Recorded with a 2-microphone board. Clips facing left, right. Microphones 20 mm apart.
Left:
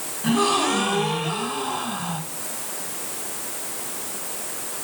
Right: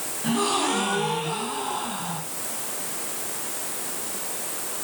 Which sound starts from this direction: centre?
A gasp, at 0.2 s.